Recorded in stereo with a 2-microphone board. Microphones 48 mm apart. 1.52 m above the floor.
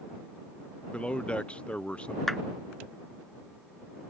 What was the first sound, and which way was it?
A man speaking, 20° left (ahead or behind).